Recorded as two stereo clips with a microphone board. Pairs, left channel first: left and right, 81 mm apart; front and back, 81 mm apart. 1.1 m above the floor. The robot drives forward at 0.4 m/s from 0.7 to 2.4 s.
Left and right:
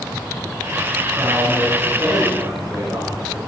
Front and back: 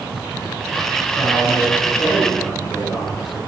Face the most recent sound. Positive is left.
turn(degrees=-40)